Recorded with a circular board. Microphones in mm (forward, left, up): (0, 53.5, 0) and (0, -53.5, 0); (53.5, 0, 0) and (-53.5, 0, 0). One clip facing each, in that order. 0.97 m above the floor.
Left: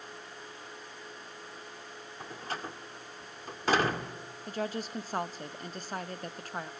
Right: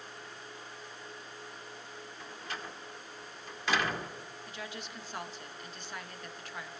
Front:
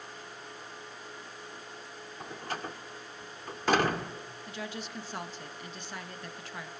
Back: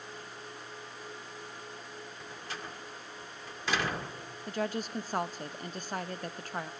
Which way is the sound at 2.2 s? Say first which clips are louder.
Left 5 dB, front 7 dB; 40° left.